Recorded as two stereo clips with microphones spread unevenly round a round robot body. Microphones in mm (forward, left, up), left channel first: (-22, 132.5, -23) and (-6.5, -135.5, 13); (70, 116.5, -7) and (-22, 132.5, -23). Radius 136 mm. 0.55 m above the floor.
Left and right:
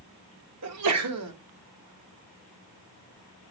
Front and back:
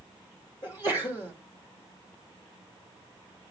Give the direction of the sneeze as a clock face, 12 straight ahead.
2 o'clock.